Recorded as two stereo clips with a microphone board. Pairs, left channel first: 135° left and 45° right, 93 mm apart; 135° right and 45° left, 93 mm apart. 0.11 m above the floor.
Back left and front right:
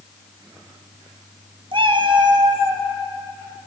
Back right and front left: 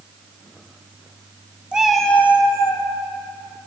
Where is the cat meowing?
35° right, 0.7 m; by 2.9 s 100° right, 0.8 m.